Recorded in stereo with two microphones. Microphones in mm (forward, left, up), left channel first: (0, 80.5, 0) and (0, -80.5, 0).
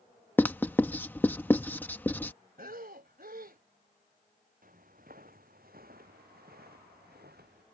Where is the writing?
10° left (ahead or behind).